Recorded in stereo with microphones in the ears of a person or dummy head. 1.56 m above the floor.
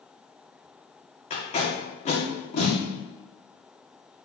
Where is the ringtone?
No ringtone in this recording.